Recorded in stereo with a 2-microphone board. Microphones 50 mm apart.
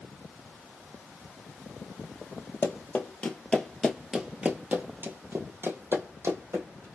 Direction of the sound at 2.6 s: 45° left (ahead or behind).